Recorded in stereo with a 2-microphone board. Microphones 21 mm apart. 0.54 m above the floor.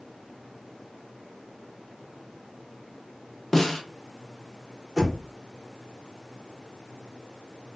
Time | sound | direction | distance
3.5 | a snare drum | 20° left (ahead or behind) | 0.6 m
5.0 | knocking | 15° right (ahead or behind) | 0.8 m